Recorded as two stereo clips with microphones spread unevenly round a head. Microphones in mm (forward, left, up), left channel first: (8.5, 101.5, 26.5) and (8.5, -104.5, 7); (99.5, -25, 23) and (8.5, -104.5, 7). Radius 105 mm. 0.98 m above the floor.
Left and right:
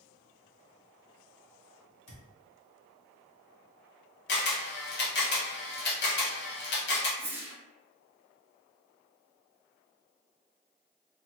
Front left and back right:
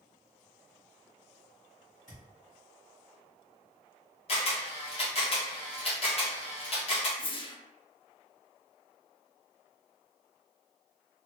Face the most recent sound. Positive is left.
turn(degrees=-10)